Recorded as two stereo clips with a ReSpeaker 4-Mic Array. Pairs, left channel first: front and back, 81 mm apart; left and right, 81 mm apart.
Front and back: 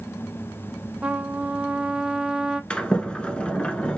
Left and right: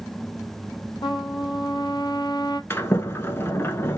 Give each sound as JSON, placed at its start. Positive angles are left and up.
{"t": 1.0, "sound": "a trumpet", "azimuth_deg": 105, "distance_m": 0.6}
{"t": 2.7, "sound": "a sliding door", "azimuth_deg": 65, "distance_m": 0.7}